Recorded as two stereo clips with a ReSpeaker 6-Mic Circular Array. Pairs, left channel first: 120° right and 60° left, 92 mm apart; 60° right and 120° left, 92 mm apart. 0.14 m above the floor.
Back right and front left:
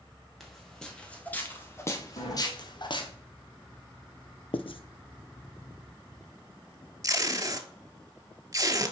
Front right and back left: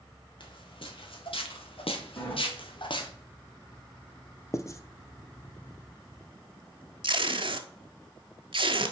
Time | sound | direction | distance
0.4 | footsteps | 30° right | 2.0 m
2.2 | a sliding door | 120° right | 3.5 m
4.5 | writing | 115° right | 0.6 m
7.0 | tape being pulled | 110° left | 0.7 m